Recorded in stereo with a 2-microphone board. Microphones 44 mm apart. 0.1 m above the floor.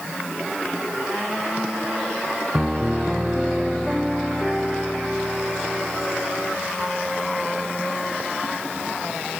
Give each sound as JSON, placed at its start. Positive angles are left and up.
{"t": 2.5, "sound": "a piano", "side_deg": -15}